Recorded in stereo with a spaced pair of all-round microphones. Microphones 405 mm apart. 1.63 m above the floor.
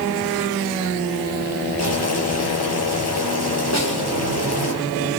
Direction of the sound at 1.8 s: 40° left (ahead or behind).